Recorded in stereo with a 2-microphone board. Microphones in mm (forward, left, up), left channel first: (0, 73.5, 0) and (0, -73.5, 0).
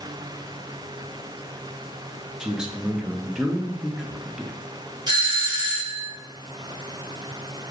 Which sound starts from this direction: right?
A doorbell, at 5.1 s.